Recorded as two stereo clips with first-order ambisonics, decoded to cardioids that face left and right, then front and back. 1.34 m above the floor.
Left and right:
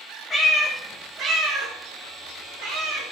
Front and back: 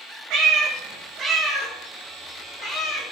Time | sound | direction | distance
0.3 | a cat meowing | 165° left | 0.8 m